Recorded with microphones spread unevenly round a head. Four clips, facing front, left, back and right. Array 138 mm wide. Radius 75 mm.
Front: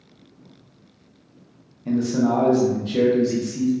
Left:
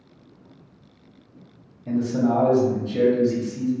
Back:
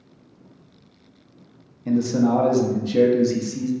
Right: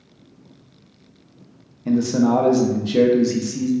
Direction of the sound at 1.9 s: 90° right.